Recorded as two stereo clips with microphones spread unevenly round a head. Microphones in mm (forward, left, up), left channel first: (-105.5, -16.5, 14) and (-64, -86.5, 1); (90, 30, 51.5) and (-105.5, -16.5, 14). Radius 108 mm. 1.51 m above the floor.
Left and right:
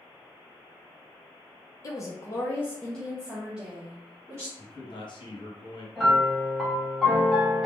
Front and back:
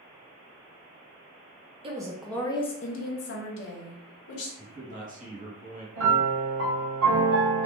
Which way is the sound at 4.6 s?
140° left.